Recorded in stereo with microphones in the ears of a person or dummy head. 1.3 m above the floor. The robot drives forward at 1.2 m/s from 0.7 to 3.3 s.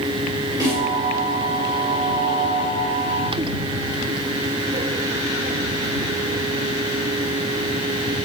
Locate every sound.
0.6 s a snare drum: 20° right (ahead or behind), 4 m